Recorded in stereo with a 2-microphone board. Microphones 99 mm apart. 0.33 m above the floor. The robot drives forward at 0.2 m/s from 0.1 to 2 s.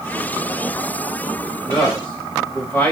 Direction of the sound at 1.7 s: 15° left (ahead or behind).